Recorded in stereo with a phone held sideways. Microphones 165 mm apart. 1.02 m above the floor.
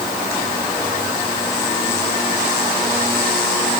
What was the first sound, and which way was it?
Only background noise.